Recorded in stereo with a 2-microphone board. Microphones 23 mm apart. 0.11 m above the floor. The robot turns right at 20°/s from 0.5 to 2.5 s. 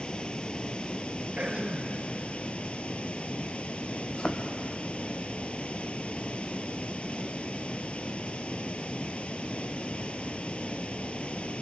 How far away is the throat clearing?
About 1.9 m.